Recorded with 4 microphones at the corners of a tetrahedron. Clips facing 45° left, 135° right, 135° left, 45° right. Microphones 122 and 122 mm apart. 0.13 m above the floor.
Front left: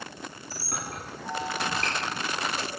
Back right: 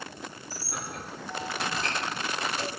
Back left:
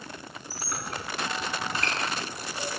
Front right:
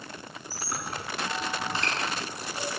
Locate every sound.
0.5 s a squeak: 25° left, 5.5 m